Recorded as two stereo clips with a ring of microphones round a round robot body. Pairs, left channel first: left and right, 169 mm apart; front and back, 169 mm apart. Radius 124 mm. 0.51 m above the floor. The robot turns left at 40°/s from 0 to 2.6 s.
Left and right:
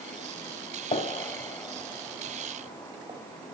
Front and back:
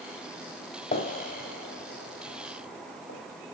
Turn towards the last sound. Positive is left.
turn(degrees=-20)